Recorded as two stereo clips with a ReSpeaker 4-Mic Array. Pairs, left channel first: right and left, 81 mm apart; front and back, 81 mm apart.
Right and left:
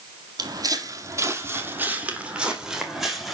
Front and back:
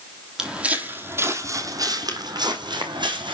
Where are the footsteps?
100° left, 1.9 m; by 3.3 s straight behind, 3 m.